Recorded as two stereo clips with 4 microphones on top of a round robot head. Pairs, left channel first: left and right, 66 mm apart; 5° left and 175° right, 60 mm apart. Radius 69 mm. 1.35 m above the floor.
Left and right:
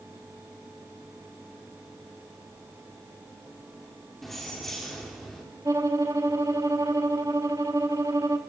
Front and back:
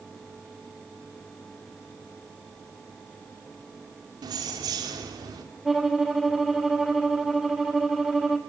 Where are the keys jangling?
Straight behind, 2.5 m.